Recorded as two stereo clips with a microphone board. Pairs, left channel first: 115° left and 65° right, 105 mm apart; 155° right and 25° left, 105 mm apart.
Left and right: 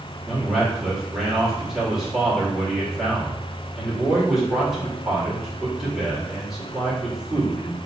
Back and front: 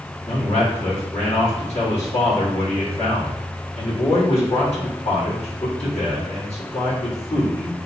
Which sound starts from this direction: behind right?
A man speaking, at 0.3 s.